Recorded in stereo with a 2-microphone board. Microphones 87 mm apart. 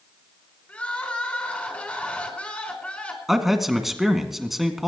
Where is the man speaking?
5° right (ahead or behind), 2 m.